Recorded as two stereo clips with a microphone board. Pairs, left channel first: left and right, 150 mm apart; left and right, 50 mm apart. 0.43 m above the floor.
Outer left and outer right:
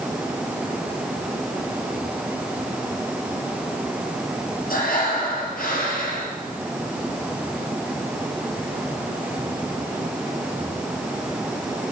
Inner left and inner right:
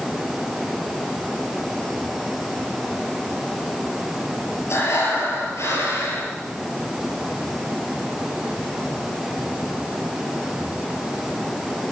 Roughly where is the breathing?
Left.